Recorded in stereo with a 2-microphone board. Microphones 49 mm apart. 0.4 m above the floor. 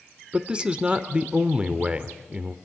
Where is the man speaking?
20° right (ahead or behind), 0.9 m.